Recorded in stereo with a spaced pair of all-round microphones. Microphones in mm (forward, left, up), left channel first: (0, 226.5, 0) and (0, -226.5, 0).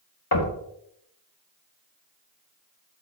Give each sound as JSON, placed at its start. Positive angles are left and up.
{"t": 0.3, "sound": "knocking", "side_deg": 55, "distance_m": 1.2}